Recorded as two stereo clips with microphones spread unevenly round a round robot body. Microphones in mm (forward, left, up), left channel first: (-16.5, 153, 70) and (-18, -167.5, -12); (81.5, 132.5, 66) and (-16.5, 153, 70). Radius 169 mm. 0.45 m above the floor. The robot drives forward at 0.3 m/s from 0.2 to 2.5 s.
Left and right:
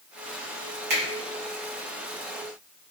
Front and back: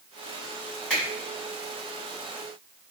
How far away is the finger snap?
About 1.5 m.